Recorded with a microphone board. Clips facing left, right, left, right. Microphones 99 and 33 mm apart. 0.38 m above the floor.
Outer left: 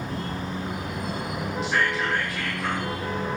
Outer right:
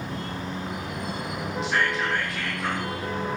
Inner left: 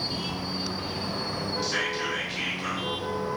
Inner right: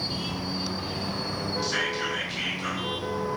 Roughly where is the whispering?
Centre.